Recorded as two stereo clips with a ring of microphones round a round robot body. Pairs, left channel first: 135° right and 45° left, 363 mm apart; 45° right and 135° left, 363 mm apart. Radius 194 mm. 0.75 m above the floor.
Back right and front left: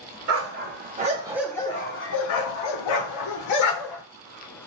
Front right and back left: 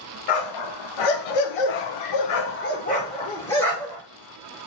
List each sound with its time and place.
0.3 s a dog barking: 10° right, 1.1 m; by 4.0 s 135° right, 1.4 m